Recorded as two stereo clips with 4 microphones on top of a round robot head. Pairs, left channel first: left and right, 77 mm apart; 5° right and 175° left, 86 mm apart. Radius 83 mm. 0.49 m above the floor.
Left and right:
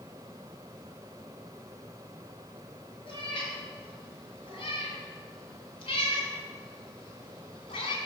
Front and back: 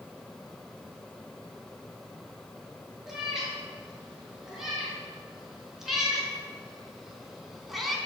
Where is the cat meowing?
90° left, 5 m; by 8.0 s 85° left, 2.5 m.